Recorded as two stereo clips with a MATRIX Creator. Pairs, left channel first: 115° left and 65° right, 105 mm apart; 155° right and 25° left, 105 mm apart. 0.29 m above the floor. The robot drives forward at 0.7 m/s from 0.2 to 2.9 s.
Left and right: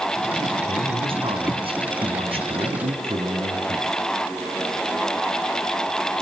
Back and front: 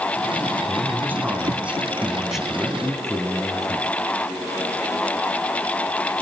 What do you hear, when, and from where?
0.7 s a man speaking: 45° right, 3.5 m; by 4.0 s 70° right, 3 m